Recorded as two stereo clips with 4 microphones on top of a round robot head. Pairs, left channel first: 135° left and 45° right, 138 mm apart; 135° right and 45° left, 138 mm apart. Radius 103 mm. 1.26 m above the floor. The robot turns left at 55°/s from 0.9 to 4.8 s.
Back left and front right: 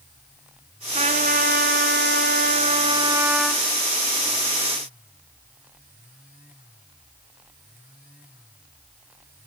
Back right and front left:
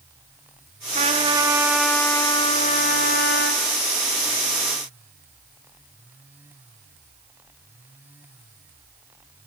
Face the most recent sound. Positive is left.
turn(degrees=150)